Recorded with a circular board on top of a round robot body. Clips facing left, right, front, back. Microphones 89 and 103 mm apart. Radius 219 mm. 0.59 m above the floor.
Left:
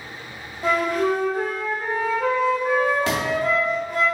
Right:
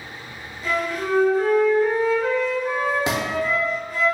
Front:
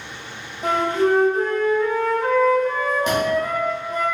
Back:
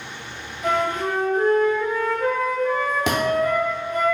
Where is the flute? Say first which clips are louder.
Left 4 dB, front 4 dB; 55° left, 1.5 m.